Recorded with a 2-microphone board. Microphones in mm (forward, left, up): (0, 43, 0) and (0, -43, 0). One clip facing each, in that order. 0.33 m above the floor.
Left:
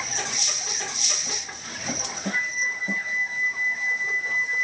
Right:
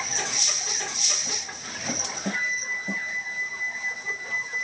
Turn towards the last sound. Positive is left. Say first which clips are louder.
# left 2 dB
turn(degrees=65)  # may be behind; listen again after turning